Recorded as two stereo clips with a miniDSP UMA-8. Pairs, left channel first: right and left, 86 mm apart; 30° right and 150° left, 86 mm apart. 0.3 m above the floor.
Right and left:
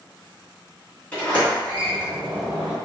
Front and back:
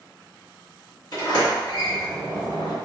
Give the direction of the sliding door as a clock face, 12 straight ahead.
1 o'clock.